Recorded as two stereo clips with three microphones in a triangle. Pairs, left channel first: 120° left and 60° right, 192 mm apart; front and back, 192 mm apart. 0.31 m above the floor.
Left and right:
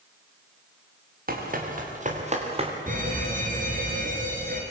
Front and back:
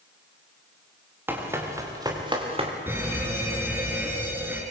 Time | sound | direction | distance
1.3 | running footsteps | 100° right | 5.5 m
2.9 | an alarm | 100° right | 4.5 m